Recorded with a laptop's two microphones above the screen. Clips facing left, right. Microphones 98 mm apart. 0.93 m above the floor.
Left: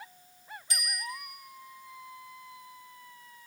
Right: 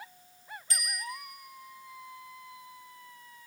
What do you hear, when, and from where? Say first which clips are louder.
0.7 s a bicycle bell: even; 20° left (ahead or behind), 2 m